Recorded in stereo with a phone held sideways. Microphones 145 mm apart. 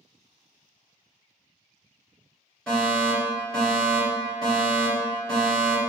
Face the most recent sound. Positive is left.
turn(degrees=5)  # may be behind; listen again after turning